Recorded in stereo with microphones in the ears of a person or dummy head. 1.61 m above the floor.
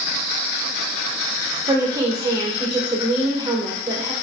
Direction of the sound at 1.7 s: 20° right (ahead or behind).